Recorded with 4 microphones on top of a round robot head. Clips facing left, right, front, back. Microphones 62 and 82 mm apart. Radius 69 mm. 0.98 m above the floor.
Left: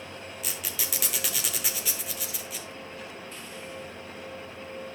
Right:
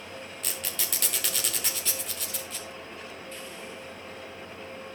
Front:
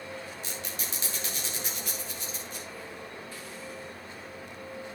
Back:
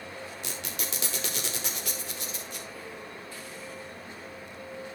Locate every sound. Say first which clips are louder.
0.4 s a squeak: even, back 1 dB; 175° left, 0.8 m